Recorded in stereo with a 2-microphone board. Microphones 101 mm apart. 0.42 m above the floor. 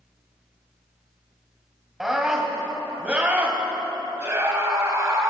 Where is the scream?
5° right (ahead or behind), 3 m; by 5.3 s 35° right (ahead or behind), 3.5 m.